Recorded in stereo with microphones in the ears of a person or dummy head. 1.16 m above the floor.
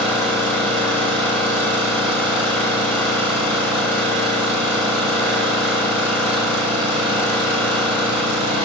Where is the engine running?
5° left (ahead or behind), 2 m.